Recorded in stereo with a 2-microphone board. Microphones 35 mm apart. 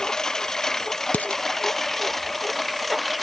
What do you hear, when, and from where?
0.0 s a lawn mower: 15° left (ahead or behind); by 3.2 s centre (ahead or behind)
1.1 s dishes clattering: 45° left (ahead or behind)